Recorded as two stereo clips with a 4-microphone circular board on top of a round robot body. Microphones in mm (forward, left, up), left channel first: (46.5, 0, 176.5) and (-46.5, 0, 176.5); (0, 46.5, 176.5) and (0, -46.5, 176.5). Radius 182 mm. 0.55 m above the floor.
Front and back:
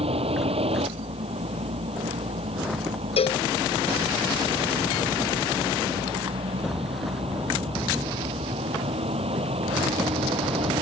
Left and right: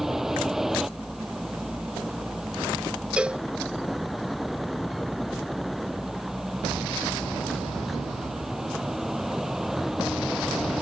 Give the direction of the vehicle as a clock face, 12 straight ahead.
6 o'clock.